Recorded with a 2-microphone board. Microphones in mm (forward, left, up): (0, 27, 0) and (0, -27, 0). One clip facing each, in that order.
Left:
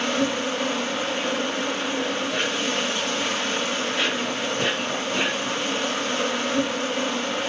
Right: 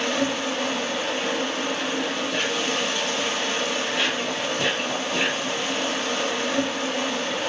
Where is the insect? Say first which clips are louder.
Left 1 dB; 40° left (ahead or behind), 2.5 m.